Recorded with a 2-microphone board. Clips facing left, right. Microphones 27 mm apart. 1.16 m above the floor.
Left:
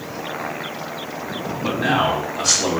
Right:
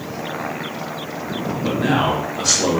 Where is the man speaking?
15° left (ahead or behind), 0.9 m; by 2.8 s 10° right (ahead or behind), 1.4 m.